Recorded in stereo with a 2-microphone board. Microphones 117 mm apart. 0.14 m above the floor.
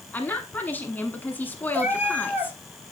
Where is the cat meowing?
15° right (ahead or behind), 1.4 m.